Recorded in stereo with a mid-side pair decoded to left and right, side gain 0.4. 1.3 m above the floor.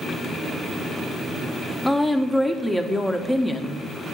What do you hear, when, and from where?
1.9 s a woman speaking: 15° left, 1.1 m